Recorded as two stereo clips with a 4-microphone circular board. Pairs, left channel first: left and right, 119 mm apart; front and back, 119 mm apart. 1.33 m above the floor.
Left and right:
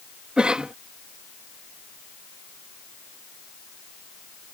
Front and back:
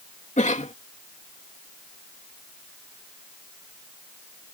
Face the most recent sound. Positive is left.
turn(degrees=-10)